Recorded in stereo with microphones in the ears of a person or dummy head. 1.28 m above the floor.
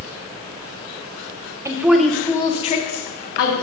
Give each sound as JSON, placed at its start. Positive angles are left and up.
{"t": 1.6, "sound": "a woman speaking", "side_deg": -25, "distance_m": 0.7}